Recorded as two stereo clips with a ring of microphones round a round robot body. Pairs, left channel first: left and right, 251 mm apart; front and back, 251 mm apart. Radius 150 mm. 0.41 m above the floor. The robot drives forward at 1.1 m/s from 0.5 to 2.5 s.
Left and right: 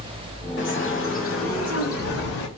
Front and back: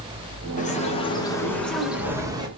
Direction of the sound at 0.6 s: 55° left.